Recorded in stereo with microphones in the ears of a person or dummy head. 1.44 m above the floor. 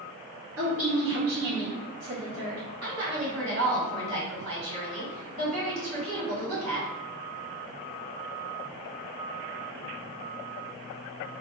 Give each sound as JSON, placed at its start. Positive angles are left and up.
{"t": 0.6, "sound": "a woman speaking", "side_deg": -80, "distance_m": 1.5}
{"t": 2.8, "sound": "a woman speaking", "side_deg": -90, "distance_m": 1.8}